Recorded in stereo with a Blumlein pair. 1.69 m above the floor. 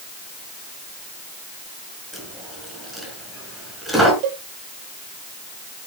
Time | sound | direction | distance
2.1 | a dropped coin | 5° right | 5.5 m
4.2 | a cowbell | 45° right | 1.6 m